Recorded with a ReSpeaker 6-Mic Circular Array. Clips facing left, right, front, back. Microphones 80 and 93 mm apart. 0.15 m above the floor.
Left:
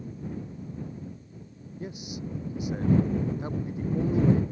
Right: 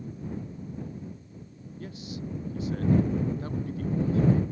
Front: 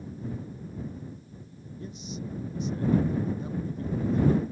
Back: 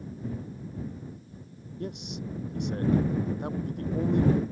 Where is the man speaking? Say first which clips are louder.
Left 1 dB, back 2 dB; 160° left.